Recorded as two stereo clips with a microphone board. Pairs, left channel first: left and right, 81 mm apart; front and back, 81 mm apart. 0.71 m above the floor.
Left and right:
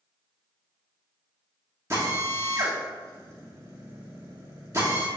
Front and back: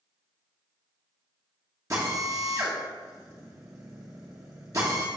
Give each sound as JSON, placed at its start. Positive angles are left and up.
{"t": 1.9, "sound": "a drill", "azimuth_deg": -135, "distance_m": 1.1}